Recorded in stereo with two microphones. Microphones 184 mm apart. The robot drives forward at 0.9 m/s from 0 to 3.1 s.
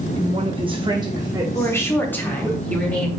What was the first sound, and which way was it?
A woman speaking, 30° right (ahead or behind).